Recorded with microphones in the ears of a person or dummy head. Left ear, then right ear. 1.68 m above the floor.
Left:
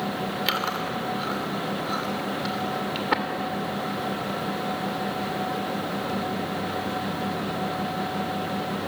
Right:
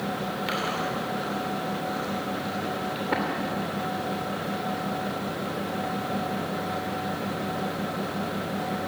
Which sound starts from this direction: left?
Chewing, at 0.5 s.